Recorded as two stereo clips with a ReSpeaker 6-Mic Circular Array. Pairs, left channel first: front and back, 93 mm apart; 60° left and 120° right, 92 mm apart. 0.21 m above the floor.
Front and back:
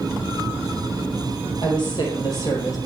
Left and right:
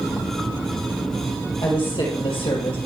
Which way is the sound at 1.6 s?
35° left.